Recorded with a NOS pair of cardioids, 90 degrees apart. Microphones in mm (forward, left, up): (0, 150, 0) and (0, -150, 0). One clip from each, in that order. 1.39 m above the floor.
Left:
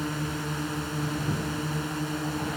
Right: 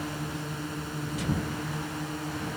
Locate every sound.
0.0 s a drone: 40° left